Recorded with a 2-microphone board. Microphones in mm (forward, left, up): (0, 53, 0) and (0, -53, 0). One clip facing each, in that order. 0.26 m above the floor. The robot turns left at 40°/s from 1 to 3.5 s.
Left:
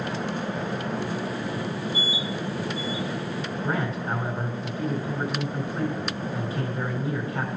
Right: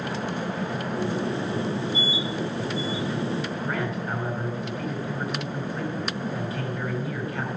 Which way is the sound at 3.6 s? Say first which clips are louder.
Left 1 dB; 25° left (ahead or behind).